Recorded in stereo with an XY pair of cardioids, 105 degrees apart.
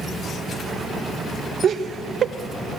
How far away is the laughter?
About 1.1 m.